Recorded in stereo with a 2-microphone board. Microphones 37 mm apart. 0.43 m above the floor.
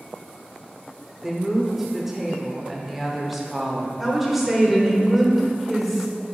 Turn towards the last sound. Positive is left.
turn(degrees=-5)  # may be behind; listen again after turning